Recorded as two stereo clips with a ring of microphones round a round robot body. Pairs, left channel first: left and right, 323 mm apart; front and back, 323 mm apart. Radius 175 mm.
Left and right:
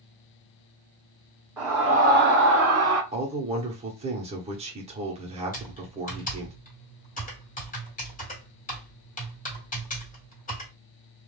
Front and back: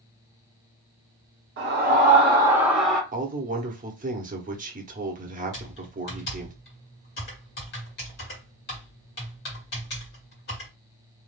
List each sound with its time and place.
1.6 s a scream: 170° right, 0.8 m; by 3.0 s 85° right, 1.0 m
3.1 s a man speaking: 145° right, 0.8 m
5.5 s typing on a keyboard: 40° left, 1.5 m